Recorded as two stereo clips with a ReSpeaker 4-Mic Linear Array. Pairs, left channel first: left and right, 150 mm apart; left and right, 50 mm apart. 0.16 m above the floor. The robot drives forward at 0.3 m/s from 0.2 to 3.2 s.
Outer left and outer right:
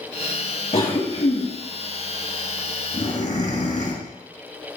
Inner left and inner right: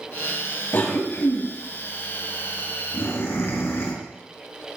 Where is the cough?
50° left (ahead or behind), 2.5 m; by 3.9 s 55° left (ahead or behind), 2 m.